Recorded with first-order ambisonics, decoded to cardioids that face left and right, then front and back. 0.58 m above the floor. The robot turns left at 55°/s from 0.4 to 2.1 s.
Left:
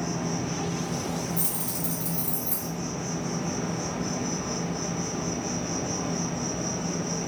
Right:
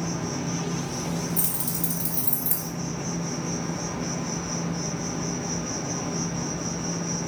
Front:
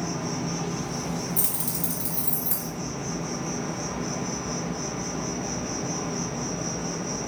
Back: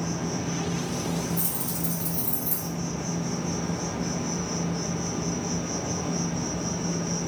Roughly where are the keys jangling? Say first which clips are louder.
Right 1 dB, front 1 dB; ahead right.